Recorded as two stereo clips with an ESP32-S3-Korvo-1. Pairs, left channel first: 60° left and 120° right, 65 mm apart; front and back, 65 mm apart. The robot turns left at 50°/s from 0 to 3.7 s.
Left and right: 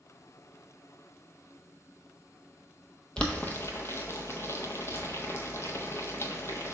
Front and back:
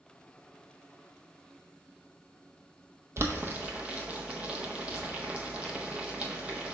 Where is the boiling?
135° left, 0.6 m; by 6.8 s 110° left, 0.6 m.